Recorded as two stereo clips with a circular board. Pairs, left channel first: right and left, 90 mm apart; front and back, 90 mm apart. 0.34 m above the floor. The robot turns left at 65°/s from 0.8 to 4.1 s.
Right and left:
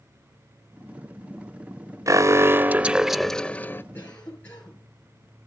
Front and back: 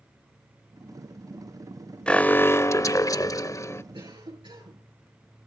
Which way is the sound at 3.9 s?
155° right.